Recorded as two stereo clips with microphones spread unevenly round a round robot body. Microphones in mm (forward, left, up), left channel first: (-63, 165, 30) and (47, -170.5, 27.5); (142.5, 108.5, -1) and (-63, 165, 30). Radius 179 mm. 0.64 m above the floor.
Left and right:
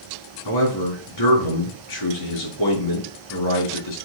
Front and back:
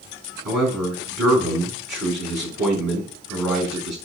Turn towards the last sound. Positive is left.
turn(degrees=130)